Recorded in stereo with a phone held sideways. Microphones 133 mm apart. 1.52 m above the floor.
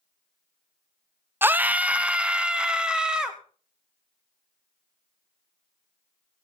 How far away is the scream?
About 0.5 m.